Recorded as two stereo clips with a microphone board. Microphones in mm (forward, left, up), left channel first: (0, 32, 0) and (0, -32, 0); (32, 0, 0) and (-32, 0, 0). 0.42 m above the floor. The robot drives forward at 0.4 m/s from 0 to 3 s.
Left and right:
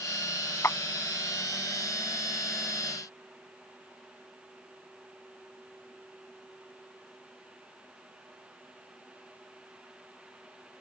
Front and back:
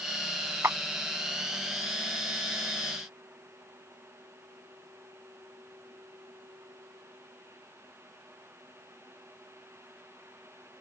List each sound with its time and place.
0.6 s a clap: 135° left; by 0.8 s 140° left